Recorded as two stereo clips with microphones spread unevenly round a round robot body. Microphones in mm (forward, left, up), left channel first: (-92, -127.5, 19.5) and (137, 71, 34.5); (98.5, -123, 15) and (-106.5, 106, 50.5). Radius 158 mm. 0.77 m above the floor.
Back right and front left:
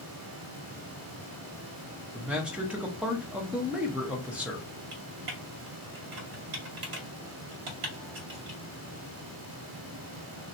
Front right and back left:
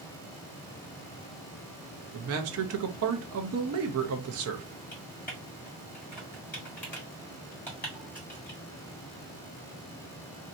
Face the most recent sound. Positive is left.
turn(degrees=35)